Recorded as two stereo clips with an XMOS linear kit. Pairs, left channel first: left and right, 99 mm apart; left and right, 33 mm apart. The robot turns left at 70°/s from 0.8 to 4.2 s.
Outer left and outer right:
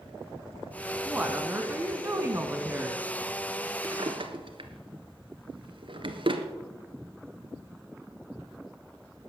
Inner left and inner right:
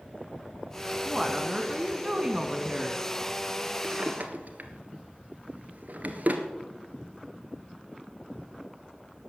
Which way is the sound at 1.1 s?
5° right (ahead or behind).